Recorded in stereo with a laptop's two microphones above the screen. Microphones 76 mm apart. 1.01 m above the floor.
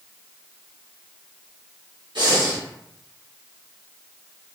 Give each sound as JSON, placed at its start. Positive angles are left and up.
{"t": 2.1, "sound": "breathing", "side_deg": -75, "distance_m": 1.0}